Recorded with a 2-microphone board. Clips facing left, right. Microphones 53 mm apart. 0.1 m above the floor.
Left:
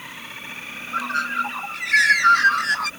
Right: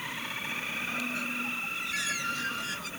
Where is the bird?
75° left (ahead or behind).